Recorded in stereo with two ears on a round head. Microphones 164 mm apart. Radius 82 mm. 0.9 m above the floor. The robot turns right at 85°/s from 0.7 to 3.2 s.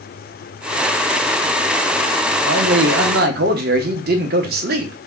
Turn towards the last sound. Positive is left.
turn(degrees=-60)